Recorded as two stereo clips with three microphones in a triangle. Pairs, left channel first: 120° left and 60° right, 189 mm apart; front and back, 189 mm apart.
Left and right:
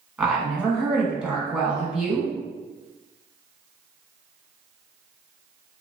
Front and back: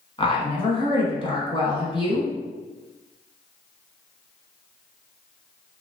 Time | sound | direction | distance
0.2 | a woman speaking | 20° left | 1.2 m